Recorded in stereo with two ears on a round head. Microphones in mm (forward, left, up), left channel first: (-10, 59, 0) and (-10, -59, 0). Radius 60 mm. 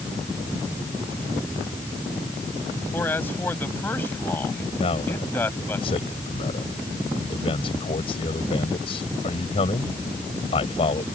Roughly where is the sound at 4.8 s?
Left.